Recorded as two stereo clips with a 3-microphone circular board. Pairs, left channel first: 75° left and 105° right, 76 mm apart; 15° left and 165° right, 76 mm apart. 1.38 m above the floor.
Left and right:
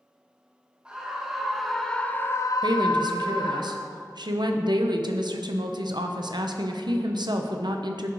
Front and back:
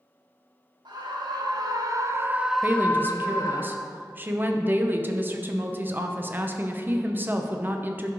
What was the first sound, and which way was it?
A scream, 175° left.